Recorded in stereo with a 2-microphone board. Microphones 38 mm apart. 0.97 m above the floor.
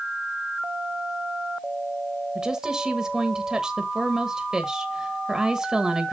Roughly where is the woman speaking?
Centre.